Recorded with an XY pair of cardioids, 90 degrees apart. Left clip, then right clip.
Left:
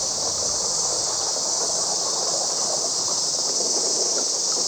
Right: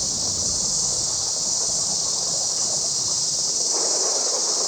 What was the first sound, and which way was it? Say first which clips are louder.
An insect: even; 20° right.